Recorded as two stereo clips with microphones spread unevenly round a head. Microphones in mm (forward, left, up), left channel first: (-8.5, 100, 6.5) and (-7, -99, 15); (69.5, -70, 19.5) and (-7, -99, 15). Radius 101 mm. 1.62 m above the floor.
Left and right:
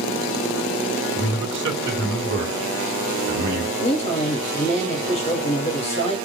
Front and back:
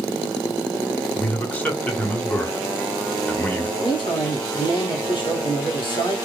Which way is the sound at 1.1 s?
55° right.